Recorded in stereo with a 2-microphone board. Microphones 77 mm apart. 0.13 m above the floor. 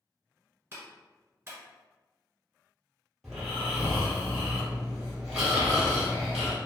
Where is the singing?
No singing in this recording.